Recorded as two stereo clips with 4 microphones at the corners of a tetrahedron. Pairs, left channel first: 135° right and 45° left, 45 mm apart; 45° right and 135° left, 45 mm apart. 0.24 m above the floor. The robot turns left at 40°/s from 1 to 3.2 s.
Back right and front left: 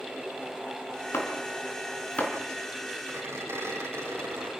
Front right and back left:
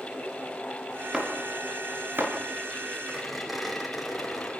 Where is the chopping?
145° right, 3.5 m; by 2.3 s 165° left, 3.5 m.